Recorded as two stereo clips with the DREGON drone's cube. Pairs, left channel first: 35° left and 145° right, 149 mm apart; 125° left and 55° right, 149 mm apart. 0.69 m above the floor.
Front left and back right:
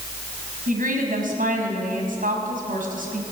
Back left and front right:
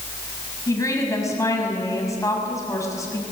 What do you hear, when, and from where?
0.7 s a woman speaking: 165° right, 6 m